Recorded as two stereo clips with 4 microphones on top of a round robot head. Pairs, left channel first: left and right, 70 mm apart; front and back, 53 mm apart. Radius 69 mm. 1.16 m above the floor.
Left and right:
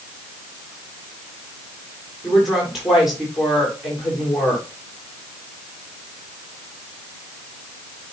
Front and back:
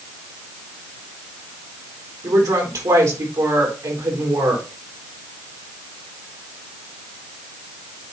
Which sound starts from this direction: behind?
A woman speaking, at 2.2 s.